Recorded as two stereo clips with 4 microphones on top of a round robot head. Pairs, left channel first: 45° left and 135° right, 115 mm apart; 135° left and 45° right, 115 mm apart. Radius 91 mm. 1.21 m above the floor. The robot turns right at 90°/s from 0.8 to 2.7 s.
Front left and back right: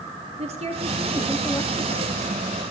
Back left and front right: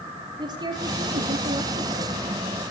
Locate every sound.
0.4 s a woman speaking: 100° right, 2.5 m; by 2.2 s 25° left, 2.5 m